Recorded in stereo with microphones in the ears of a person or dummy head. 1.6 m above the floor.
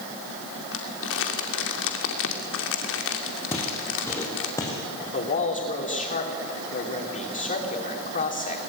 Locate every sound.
0.7 s crumpling: 70° left (ahead or behind), 2.5 m
3.5 s footsteps: 10° left (ahead or behind), 4.5 m; by 5.0 s 20° left (ahead or behind), 5 m
5.1 s a man speaking: 40° left (ahead or behind), 3.5 m